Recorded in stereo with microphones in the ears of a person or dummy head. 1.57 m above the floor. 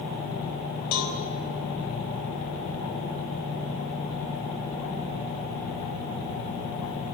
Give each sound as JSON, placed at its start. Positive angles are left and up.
{"t": 0.9, "sound": "a cowbell", "side_deg": 55, "distance_m": 4.0}